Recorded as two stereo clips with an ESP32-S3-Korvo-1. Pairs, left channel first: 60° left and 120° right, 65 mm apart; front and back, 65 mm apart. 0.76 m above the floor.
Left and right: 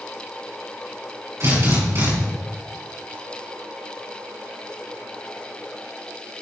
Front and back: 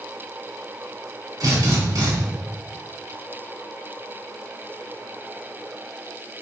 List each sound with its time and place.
1.4 s a drill: 165° right, 4.5 m